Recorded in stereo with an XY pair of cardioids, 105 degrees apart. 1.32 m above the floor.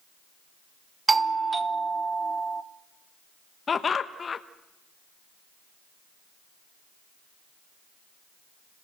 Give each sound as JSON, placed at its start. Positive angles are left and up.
{"t": 1.1, "sound": "a doorbell", "azimuth_deg": -25, "distance_m": 1.0}
{"t": 3.7, "sound": "laughter", "azimuth_deg": 35, "distance_m": 1.0}